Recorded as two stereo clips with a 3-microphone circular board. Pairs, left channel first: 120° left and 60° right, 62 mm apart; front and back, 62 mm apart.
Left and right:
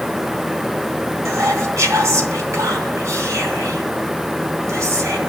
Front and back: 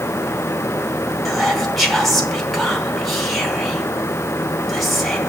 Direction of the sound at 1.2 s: 90° right.